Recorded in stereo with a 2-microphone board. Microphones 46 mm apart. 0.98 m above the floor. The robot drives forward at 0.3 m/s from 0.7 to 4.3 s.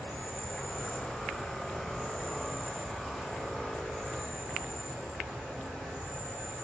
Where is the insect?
25° left (ahead or behind), 0.8 m; by 6.6 s 10° left (ahead or behind), 1.5 m.